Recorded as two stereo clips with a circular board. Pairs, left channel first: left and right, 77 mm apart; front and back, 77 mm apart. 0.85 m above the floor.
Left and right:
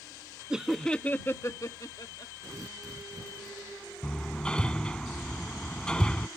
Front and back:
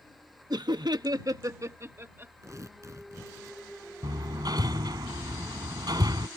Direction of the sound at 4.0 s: 165° left.